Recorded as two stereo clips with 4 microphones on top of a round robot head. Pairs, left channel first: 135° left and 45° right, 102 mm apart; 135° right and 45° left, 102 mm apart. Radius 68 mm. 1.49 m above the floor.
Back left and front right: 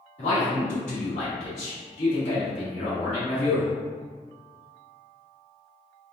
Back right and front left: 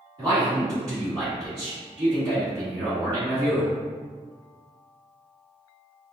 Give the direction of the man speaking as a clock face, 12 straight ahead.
9 o'clock.